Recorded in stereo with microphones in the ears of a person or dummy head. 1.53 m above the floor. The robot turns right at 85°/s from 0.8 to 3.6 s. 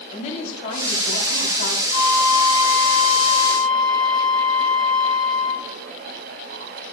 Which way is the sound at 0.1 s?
40° left.